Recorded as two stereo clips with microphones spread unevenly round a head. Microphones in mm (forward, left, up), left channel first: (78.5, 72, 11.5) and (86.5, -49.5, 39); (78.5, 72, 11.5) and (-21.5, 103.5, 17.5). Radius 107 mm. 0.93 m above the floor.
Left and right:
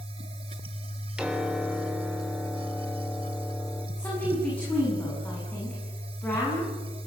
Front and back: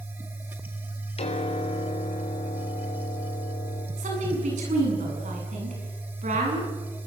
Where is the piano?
Straight ahead, 3.5 m.